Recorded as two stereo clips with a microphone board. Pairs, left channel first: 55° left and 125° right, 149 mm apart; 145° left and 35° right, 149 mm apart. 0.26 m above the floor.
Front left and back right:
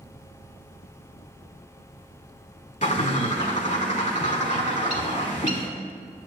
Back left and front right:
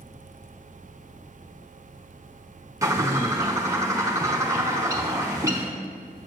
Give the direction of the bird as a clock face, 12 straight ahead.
11 o'clock.